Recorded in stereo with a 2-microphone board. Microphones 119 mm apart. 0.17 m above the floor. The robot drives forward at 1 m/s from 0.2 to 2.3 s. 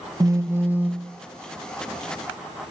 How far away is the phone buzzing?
About 0.5 m.